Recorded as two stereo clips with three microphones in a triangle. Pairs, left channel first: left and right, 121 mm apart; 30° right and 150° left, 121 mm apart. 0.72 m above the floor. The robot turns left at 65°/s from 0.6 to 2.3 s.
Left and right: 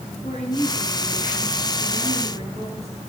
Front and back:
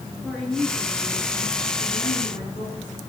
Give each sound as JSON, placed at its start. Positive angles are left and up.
{"t": 0.2, "sound": "a woman speaking", "azimuth_deg": 55, "distance_m": 10.0}